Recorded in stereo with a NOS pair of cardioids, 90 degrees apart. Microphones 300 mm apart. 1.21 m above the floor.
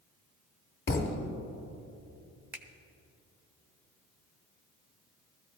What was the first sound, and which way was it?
A thud, 35° left.